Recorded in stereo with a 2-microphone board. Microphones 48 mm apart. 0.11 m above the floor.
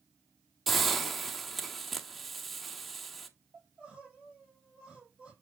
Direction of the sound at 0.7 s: 5° left (ahead or behind).